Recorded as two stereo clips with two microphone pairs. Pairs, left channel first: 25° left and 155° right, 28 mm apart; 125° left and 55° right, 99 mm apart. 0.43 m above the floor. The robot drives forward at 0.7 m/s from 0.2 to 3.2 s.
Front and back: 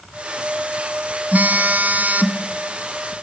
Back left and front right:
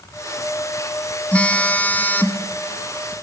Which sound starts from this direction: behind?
A phone buzzing, at 1.3 s.